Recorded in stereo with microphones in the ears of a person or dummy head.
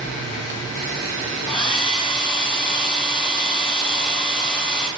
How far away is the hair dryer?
About 0.6 m.